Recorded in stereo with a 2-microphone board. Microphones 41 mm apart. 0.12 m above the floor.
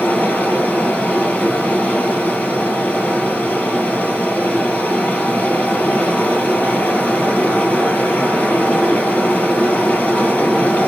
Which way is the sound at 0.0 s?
40° left (ahead or behind).